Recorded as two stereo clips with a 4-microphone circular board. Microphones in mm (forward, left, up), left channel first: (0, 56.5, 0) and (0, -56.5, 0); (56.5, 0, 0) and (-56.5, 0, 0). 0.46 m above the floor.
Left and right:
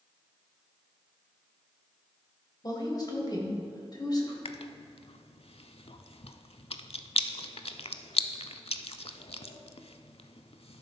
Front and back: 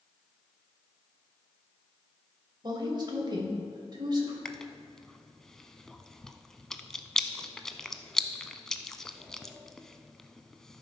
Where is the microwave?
I don't hear a microwave.